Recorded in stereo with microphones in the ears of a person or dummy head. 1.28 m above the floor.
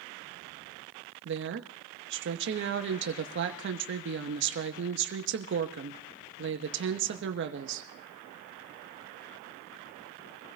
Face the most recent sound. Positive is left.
turn(degrees=-55)  # may be behind; listen again after turning